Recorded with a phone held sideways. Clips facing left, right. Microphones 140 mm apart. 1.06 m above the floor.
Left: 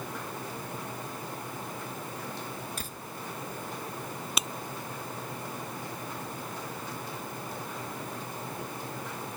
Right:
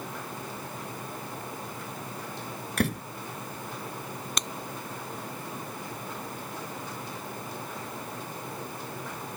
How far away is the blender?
I don't hear a blender.